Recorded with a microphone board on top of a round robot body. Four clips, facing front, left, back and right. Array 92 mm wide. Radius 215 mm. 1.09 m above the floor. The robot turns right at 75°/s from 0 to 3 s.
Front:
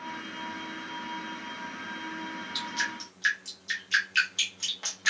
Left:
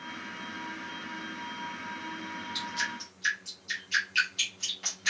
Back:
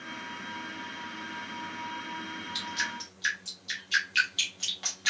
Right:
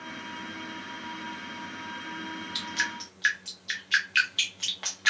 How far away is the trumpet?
No trumpet in this recording.